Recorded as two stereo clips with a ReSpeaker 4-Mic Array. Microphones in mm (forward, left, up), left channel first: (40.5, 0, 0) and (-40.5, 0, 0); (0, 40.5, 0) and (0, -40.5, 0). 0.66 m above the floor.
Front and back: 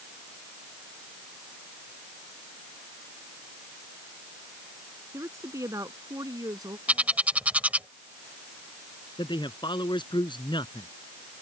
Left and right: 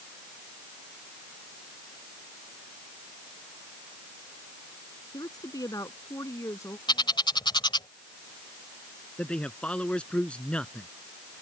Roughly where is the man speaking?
Ahead.